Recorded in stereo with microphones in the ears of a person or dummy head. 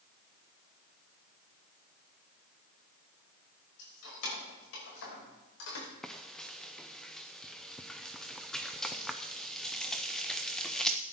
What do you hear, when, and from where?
3.8 s keys jangling: 80° left, 6.5 m
6.0 s frying: centre (ahead or behind), 0.7 m